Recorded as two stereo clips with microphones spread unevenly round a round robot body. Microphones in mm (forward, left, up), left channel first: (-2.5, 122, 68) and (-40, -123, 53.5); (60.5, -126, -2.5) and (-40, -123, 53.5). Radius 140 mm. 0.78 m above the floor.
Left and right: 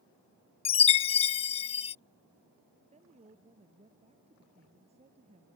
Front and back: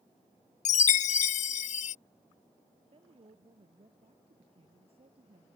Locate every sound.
0.7 s a chime: 15° left
2.9 s a woman speaking: 165° right